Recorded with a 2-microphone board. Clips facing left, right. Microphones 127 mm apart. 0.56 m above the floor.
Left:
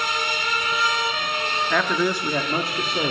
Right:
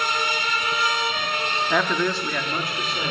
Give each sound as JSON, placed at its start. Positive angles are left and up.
{"t": 1.7, "sound": "a man speaking", "side_deg": -5, "distance_m": 0.8}